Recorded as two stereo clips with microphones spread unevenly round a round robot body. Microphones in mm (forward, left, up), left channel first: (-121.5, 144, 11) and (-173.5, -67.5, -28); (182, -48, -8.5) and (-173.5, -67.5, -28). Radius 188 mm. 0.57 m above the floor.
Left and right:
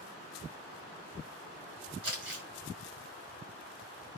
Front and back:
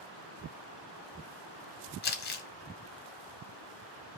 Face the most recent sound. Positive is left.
turn(degrees=-60)